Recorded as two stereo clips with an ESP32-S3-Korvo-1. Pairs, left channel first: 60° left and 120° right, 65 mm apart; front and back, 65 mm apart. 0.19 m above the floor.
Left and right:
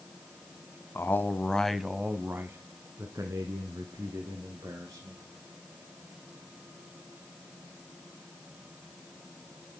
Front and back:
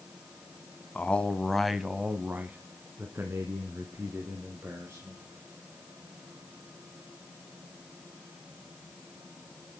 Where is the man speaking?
50° left, 1.2 m; by 5.2 s 130° right, 3.5 m.